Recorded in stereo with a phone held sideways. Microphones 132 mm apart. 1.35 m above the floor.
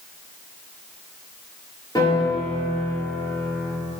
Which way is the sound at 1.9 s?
30° left (ahead or behind).